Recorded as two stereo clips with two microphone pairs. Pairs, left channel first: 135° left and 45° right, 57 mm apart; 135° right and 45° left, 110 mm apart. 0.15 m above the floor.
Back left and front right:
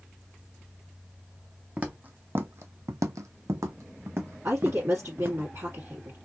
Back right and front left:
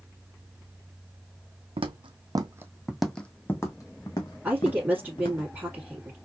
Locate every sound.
1.8 s footsteps: 20° left, 0.7 m; by 5.4 s 90° right, 1.5 m
4.4 s a woman speaking: 25° right, 1.7 m